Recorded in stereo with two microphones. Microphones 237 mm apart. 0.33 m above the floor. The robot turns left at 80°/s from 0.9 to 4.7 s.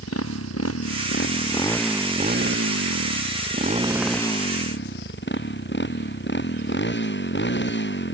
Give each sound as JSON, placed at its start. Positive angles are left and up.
{"t": 0.0, "sound": "a motorcycle", "azimuth_deg": 75}